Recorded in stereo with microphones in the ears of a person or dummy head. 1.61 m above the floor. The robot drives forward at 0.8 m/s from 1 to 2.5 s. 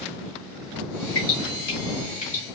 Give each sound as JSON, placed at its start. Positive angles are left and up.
{"t": 1.1, "sound": "dripping", "side_deg": 45, "distance_m": 2.0}